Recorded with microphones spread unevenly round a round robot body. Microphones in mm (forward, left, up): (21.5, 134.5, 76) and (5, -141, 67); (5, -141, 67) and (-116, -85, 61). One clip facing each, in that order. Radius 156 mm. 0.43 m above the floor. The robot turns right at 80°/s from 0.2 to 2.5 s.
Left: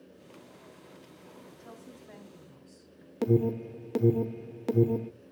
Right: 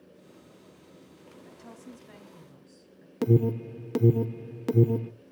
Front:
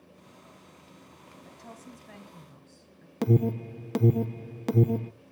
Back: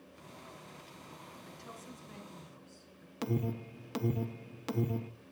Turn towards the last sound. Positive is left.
turn(degrees=-30)